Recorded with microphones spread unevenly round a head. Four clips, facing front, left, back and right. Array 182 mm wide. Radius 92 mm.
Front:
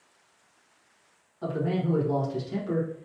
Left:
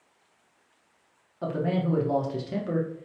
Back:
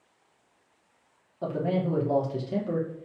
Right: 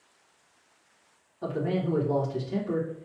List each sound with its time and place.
1.4 s a man speaking: 140° left, 1.1 m